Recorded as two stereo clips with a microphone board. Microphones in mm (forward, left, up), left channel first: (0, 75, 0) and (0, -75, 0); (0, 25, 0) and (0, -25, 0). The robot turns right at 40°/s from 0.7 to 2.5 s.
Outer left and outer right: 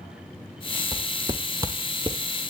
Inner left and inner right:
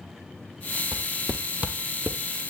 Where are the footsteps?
30° right (ahead or behind), 1.2 m; by 2.5 s 45° right (ahead or behind), 1.0 m.